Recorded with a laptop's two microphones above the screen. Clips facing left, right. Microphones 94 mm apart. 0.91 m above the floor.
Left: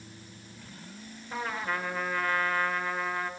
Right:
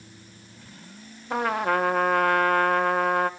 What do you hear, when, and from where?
1.3 s a trumpet: 70° right (ahead or behind), 0.9 m